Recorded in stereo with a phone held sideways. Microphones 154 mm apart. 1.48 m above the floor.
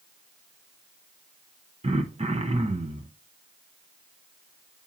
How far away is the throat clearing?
About 0.8 m.